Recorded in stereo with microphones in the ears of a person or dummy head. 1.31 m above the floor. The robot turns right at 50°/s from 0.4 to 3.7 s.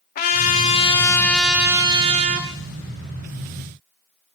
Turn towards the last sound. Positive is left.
turn(degrees=-65)